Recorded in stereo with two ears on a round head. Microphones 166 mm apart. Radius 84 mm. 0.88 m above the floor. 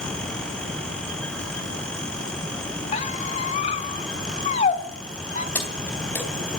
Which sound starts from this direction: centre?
Keys jangling, at 5.5 s.